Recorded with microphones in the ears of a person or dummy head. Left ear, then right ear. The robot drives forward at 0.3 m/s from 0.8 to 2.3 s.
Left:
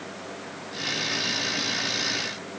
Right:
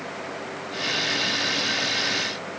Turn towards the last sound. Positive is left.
No sound to turn to.